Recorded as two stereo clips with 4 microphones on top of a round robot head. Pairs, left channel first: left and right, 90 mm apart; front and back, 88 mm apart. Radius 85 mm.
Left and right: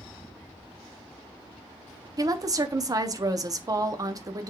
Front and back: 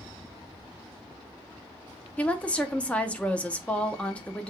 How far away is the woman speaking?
About 0.7 m.